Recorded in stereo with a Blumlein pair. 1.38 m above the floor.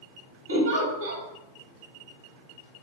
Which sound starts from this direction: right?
A giggle, at 0.5 s.